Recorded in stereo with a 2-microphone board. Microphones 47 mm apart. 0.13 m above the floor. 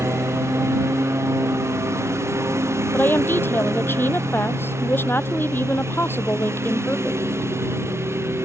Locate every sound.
0.0 s a lawn mower: 90° right; by 8.5 s 70° right (ahead or behind)
2.9 s a woman speaking: 55° left (ahead or behind)